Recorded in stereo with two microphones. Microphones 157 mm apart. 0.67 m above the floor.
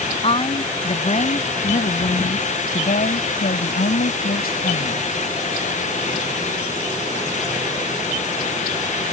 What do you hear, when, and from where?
0.2 s a woman speaking: 40° left (ahead or behind); by 5.0 s 80° left